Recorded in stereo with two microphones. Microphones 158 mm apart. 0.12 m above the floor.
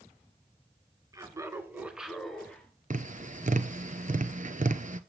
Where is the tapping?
55° right (ahead or behind), 0.7 m.